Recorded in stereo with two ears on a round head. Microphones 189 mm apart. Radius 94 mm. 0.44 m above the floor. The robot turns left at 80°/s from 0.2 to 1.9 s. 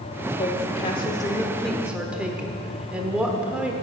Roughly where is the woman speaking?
Left.